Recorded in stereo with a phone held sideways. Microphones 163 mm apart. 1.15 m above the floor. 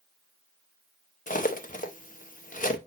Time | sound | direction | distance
1.3 | cutlery clinking | 55° left (ahead or behind) | 0.7 m